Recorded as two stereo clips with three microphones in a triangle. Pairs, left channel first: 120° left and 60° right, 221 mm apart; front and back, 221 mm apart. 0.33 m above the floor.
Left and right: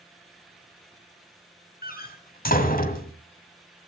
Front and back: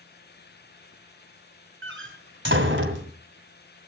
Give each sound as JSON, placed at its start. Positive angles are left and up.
{"t": 1.8, "sound": "a door slam", "azimuth_deg": 165, "distance_m": 1.7}